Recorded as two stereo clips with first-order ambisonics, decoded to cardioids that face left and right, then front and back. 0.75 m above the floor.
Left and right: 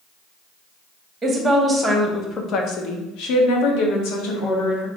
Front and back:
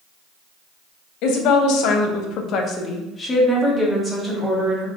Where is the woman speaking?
15° right, 1.0 m; by 4.9 s 105° left, 1.6 m.